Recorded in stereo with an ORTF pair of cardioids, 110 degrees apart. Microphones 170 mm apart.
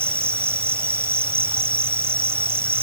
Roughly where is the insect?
Ahead.